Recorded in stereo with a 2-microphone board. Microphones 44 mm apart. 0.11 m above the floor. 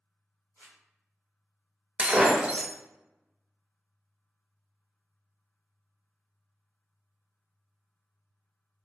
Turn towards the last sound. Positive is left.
turn(degrees=-20)  # may be behind; listen again after turning